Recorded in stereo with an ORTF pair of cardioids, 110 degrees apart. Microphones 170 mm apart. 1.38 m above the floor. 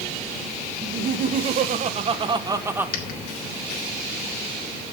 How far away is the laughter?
About 1.9 m.